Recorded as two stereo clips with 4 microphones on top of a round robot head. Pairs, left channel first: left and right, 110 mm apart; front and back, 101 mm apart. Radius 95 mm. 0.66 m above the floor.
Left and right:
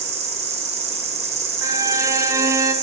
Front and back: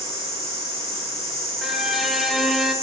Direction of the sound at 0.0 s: 65° right.